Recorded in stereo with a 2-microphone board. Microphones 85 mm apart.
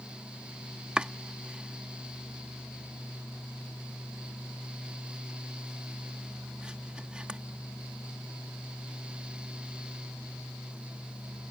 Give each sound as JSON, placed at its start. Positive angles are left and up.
{"t": 1.0, "sound": "chopping", "side_deg": -10}